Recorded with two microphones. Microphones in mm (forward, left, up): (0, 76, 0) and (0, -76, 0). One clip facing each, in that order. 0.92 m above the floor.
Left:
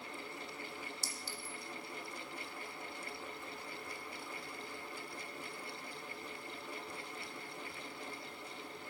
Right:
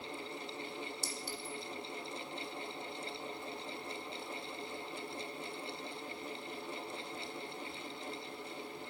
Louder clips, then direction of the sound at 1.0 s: Right 4 dB; 60° right (ahead or behind).